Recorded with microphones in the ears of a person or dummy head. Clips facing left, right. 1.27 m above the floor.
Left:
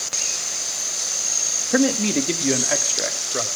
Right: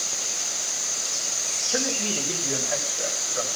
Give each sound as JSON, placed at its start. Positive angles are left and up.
{"t": 1.7, "sound": "a man speaking", "side_deg": 70, "distance_m": 1.7}